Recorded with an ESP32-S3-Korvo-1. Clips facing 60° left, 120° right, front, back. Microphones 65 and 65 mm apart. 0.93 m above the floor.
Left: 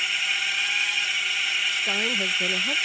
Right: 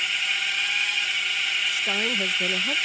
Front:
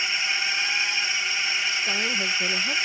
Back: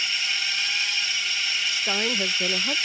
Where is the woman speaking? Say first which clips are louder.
Even, even; 160° left.